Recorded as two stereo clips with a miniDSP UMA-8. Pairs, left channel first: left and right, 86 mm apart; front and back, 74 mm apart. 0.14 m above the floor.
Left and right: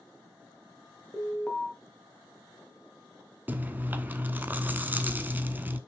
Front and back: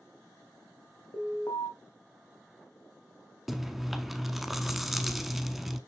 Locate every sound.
1.1 s an alarm: 10° left, 2 m
3.5 s chewing: 95° right, 0.7 m